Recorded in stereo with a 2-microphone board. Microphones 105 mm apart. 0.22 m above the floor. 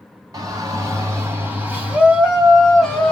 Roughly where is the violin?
I don't hear a violin.